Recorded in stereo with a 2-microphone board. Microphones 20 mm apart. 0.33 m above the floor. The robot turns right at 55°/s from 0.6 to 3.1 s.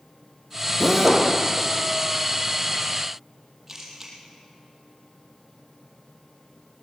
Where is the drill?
10° right (ahead or behind), 5 m; by 1.3 s 35° right (ahead or behind), 5 m.